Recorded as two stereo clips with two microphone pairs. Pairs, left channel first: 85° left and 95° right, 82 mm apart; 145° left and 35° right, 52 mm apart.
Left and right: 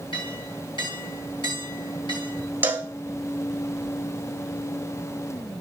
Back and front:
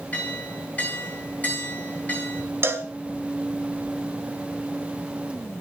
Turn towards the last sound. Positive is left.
turn(degrees=-35)